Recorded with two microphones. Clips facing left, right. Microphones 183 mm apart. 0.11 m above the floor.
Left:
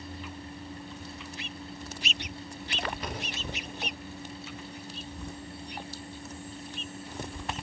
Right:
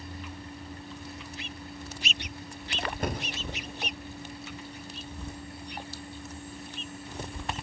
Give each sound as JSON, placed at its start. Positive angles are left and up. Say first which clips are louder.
{"t": 3.0, "sound": "a door slam", "louder": "right 5 dB", "side_deg": -45, "distance_m": 5.0}